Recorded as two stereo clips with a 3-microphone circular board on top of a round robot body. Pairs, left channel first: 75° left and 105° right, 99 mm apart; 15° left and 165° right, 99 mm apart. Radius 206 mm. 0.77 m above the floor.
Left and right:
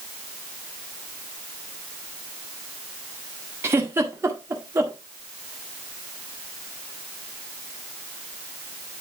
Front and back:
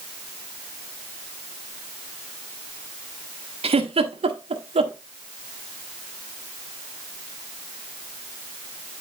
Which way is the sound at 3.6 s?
170° right.